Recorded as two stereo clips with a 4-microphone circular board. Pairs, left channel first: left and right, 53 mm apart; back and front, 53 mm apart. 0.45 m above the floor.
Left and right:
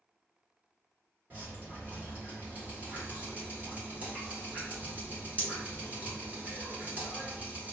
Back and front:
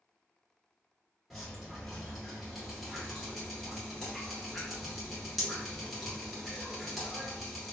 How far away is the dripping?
About 1.4 m.